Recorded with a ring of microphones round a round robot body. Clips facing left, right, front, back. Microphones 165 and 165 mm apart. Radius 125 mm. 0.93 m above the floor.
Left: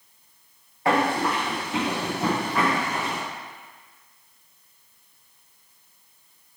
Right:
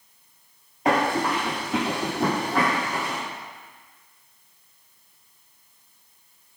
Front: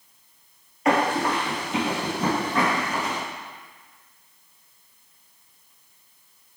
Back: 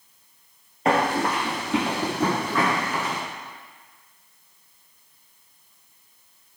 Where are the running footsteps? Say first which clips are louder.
Even, even; 145° right, 1.0 m.